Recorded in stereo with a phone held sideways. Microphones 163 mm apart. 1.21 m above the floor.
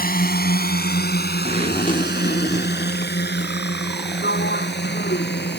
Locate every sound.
0.0 s a drone: 60° left (ahead or behind); by 5.6 s 85° left
1.4 s a zipper: 50° left (ahead or behind)
4.2 s a sliding door: 80° left